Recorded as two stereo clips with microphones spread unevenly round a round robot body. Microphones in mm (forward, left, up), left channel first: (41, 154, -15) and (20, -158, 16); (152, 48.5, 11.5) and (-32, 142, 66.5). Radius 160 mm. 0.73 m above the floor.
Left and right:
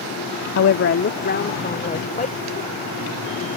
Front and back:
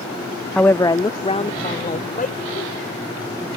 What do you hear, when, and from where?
0.6 s a woman speaking: 50° left; by 2.7 s 20° left